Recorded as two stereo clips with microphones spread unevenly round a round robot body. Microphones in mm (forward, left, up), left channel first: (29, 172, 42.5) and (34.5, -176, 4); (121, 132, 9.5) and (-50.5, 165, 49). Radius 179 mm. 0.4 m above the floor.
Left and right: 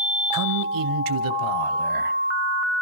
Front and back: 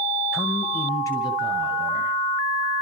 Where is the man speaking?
95° right, 1.5 m; by 2.2 s 70° right, 2.5 m.